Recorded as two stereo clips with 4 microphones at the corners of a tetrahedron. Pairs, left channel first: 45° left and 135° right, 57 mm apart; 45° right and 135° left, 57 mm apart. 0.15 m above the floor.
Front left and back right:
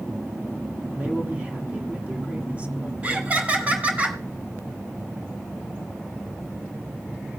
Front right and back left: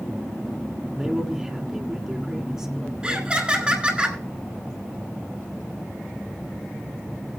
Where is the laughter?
175° right, 1.6 m.